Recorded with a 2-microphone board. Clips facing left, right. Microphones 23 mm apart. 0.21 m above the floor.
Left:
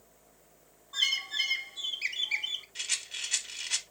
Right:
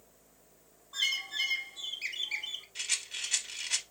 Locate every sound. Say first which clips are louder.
0.9 s a bird: left 3 dB; 15° left (ahead or behind), 0.6 m
2.8 s a rattle: right 2 dB; 5° left (ahead or behind), 0.6 m